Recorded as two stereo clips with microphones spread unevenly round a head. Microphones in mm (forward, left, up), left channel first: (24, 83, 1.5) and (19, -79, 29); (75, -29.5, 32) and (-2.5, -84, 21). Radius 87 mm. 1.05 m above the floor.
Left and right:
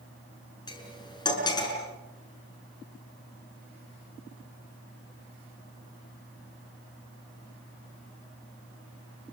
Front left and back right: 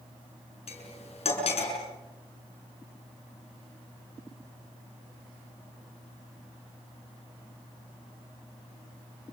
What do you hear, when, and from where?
0.7 s cutlery clinking: 20° left, 7 m